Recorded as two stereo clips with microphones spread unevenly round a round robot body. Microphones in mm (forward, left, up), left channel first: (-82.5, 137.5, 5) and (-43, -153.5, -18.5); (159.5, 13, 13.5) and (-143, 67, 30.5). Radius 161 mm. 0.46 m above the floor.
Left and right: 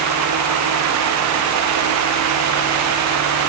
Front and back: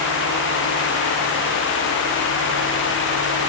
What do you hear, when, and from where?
Only background noise.